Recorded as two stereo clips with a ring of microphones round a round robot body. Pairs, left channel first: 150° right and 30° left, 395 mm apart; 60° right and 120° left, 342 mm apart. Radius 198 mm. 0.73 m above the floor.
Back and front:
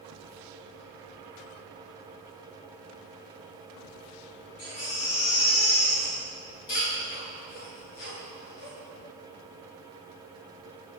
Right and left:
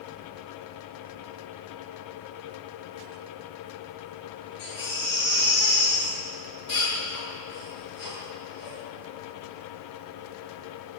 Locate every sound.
4.6 s a baby crying: 175° right, 9 m